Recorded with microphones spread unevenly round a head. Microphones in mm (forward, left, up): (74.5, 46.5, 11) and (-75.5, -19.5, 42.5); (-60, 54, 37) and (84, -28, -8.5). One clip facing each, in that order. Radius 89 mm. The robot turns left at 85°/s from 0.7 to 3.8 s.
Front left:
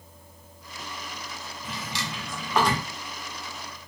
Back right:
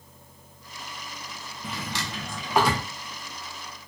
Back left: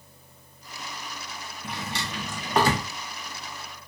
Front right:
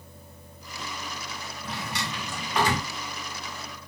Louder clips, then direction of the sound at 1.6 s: Back right 2 dB, even; 145° right.